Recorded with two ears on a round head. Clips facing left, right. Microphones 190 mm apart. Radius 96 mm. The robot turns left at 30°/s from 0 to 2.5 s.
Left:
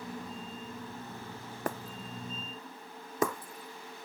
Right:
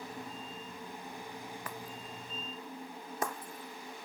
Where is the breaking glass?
40° left (ahead or behind); by 4.0 s 65° left (ahead or behind).